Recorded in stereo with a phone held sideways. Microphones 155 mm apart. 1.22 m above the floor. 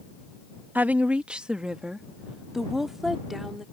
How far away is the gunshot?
I don't hear a gunshot.